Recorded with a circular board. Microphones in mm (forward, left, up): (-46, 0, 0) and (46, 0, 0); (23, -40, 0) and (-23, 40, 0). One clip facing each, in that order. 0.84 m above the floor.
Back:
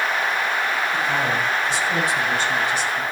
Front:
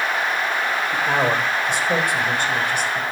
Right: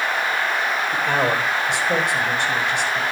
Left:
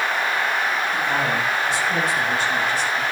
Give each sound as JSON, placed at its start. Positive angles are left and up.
{"t": 0.9, "sound": "a man speaking", "azimuth_deg": -35, "distance_m": 4.0}